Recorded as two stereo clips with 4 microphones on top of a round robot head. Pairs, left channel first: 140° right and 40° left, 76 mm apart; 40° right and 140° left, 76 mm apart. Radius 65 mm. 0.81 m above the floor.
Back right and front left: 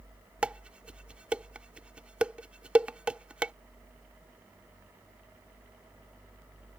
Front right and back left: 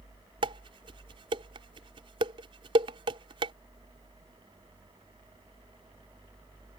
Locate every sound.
0.4 s dishes clattering: 115° left